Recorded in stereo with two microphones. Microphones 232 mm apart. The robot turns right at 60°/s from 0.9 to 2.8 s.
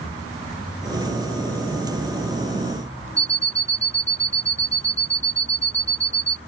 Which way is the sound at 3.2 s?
25° left (ahead or behind).